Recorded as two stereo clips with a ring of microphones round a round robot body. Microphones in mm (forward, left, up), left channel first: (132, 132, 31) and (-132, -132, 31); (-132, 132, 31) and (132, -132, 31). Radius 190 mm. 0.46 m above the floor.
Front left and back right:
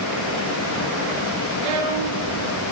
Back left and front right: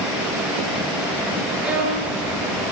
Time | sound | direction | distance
1.6 | a violin | 130° right | 5.5 m